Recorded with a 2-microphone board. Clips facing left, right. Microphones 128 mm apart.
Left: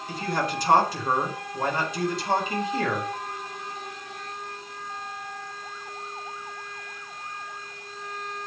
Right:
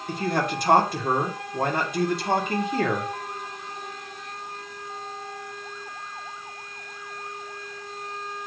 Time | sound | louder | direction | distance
0.1 | a man speaking | right 2 dB | 60° right (ahead or behind) | 2 m